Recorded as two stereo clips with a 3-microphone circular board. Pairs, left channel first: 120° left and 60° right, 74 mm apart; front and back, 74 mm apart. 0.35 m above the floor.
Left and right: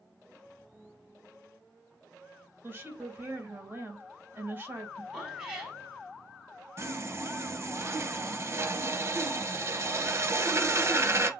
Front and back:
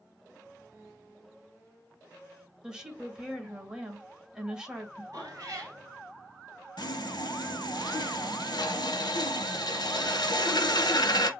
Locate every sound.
2.6 s a woman speaking: 100° right, 1.6 m
5.1 s a cat meowing: 135° right, 3 m
6.8 s sawing: 10° right, 0.7 m